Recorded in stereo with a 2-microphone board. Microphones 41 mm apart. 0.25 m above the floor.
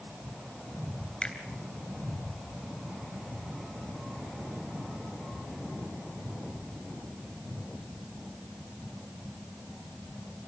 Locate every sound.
1.2 s a finger snap: 20° left (ahead or behind), 3 m